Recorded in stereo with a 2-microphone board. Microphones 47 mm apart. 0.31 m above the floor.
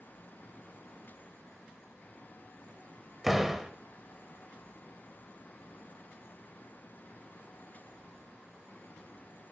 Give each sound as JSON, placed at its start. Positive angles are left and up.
{"t": 3.2, "sound": "a door slam", "side_deg": -5, "distance_m": 0.9}